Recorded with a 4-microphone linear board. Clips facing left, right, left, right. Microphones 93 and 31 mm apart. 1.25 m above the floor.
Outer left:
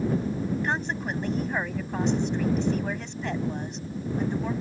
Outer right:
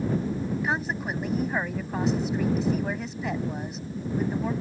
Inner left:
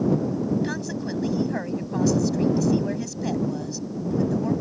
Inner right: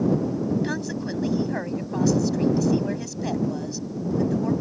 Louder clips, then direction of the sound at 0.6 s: Even, inner right 1 dB; 5° right (ahead or behind).